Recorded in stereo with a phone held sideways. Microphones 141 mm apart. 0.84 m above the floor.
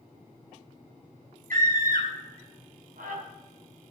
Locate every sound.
1.5 s a scream: 75° right (ahead or behind), 3.5 m; by 3.2 s 65° right (ahead or behind), 5.5 m